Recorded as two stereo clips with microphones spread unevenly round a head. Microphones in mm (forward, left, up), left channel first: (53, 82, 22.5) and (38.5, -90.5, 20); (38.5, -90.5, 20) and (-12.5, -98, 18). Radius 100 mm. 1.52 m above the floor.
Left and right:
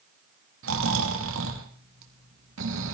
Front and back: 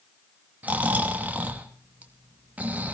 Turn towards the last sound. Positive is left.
turn(degrees=-115)